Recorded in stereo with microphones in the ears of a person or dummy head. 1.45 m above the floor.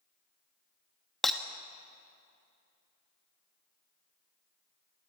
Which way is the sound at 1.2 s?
5° left (ahead or behind).